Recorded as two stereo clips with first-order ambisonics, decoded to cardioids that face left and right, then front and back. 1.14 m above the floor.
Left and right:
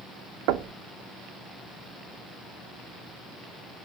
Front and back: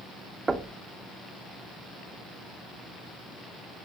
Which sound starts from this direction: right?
Knocking, at 0.5 s.